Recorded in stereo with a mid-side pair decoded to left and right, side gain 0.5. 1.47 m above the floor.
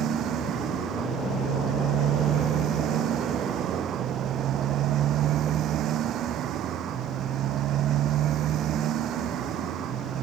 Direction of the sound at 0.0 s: 65° right.